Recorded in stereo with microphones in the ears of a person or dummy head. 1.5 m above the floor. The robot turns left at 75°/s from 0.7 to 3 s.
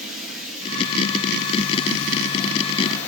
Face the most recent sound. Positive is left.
turn(degrees=10)